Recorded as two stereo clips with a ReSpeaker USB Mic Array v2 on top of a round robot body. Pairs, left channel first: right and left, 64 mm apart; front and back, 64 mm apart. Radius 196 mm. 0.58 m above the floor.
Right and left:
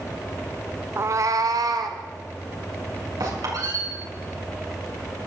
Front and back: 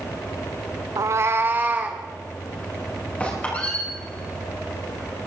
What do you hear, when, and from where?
1.0 s a cat meowing: 145° left, 0.5 m; by 2.0 s 115° left, 1.7 m
3.2 s a squeak: 70° left, 5.5 m